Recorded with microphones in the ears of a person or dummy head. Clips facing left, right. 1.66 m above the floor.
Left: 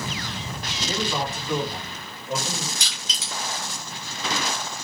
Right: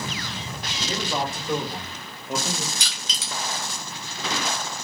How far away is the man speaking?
About 2 m.